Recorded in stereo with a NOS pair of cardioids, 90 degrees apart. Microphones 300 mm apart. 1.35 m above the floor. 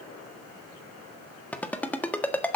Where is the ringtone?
5° left, 1.5 m.